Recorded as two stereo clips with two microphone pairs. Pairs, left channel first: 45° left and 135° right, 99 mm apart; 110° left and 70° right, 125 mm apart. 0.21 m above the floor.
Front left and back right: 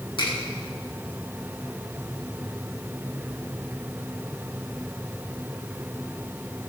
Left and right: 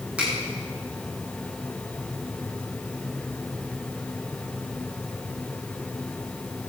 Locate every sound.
0.2 s a finger snap: 10° left, 7.5 m